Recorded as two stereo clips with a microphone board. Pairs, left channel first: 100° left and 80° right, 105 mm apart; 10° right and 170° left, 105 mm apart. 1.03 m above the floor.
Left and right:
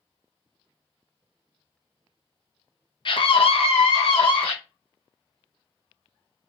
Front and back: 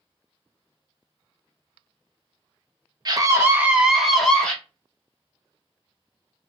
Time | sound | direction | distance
3.0 | a scream | 125° left | 0.7 m